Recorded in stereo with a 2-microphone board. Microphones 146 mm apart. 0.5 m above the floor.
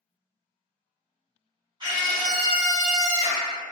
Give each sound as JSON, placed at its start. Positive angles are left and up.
{"t": 1.8, "sound": "a scream", "side_deg": -30, "distance_m": 1.0}